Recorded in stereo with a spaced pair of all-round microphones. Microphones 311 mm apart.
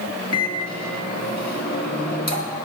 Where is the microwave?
55° left (ahead or behind), 1.7 m.